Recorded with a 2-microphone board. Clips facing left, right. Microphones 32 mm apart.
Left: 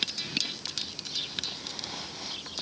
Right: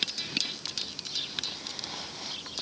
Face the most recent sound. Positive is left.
No sound to turn to.